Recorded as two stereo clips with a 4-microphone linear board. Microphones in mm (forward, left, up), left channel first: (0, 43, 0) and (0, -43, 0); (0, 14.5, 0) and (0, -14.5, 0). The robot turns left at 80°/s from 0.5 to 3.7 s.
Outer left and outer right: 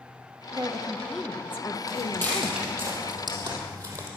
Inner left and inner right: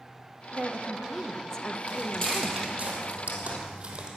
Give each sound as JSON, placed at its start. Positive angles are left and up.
{"t": 0.5, "sound": "a woman speaking", "azimuth_deg": -125, "distance_m": 1.0}
{"t": 1.9, "sound": "footsteps", "side_deg": 50, "distance_m": 3.0}